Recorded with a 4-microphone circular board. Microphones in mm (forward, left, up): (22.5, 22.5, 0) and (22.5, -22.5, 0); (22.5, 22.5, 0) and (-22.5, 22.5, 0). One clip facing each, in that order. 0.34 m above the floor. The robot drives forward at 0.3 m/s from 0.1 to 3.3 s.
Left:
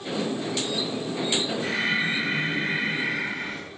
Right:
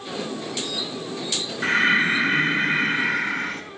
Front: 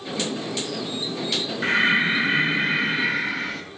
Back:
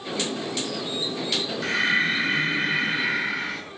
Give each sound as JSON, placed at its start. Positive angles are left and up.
{"t": 1.6, "sound": "breathing", "azimuth_deg": -65, "distance_m": 1.3}